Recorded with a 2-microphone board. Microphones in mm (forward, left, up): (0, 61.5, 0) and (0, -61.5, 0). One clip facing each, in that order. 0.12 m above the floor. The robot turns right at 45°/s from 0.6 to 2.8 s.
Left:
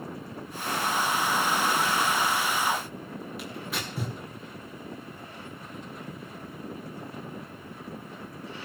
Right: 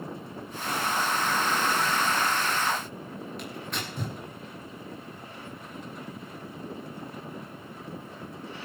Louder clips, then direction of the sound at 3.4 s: Left 1 dB; 5° left (ahead or behind).